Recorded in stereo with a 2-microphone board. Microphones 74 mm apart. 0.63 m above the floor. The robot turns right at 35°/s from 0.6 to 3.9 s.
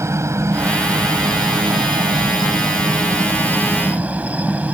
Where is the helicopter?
40° right (ahead or behind); by 4.8 s 20° right (ahead or behind).